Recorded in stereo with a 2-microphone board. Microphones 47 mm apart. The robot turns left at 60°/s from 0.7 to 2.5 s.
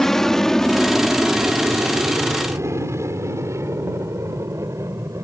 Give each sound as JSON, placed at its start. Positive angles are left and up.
{"t": 0.0, "sound": "an aircraft", "side_deg": 10}